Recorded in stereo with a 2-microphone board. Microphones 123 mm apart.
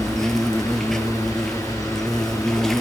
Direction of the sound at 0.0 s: 5° left (ahead or behind).